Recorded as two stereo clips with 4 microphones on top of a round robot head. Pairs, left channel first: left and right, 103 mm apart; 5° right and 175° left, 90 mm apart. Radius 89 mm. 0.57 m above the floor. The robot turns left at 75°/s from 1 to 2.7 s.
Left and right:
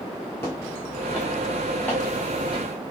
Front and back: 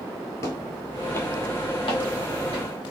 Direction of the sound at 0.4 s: 20° left.